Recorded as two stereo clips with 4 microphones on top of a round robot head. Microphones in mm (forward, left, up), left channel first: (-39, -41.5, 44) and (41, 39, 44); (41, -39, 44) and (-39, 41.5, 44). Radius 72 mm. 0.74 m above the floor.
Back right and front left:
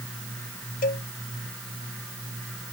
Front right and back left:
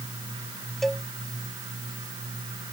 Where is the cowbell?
135° right.